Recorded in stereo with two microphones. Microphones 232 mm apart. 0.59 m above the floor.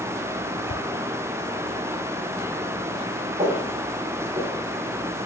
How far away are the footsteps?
About 3 m.